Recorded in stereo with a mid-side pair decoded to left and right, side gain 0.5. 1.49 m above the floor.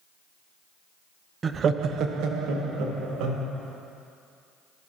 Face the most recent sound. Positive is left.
turn(degrees=-75)